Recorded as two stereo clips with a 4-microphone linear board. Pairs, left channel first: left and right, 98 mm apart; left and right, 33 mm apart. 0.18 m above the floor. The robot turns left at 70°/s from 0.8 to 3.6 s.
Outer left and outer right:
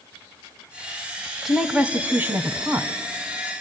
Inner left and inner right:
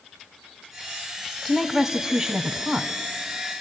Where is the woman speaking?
5° right (ahead or behind), 1.2 m; by 2.9 s 20° right (ahead or behind), 1.2 m.